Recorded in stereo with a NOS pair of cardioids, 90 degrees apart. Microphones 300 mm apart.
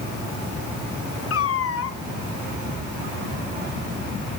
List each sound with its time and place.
1.3 s a cat meowing: 50° left, 2 m